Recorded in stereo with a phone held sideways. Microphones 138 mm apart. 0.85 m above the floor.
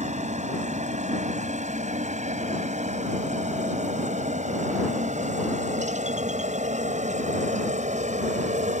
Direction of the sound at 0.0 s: 60° right (ahead or behind).